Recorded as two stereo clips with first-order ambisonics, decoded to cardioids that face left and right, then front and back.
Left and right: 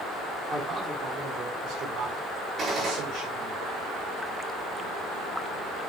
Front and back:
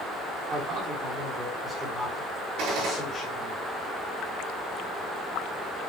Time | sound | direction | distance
0.5 | a man speaking | 155° right | 1.7 m
2.6 | a gunshot | 150° right | 5 m